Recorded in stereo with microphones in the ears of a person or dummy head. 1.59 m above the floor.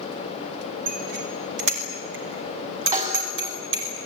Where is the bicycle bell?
65° right (ahead or behind), 4 m; by 3.9 s 80° right, 6.5 m.